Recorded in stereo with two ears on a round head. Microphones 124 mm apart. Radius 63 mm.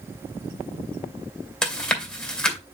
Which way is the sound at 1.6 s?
10° left (ahead or behind).